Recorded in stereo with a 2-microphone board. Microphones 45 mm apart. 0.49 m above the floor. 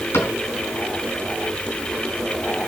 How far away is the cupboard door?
About 4 m.